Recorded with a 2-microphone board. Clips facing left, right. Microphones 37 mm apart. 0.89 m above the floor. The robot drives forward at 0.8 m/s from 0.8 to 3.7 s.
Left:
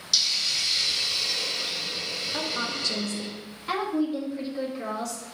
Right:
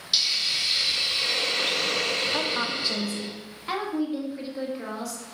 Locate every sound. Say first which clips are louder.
0.1 s a hiss: right 1 dB; 25° right (ahead or behind), 1.1 m
2.3 s a woman speaking: right 3 dB; 25° right (ahead or behind), 0.7 m; by 5.2 s 10° right (ahead or behind), 1.3 m